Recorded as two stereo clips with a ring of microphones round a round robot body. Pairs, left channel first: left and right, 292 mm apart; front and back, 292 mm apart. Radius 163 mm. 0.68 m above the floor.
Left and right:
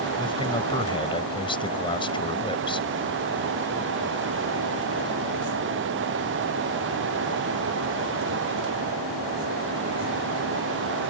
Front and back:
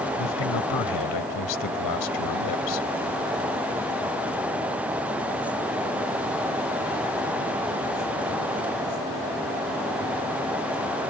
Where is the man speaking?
15° left.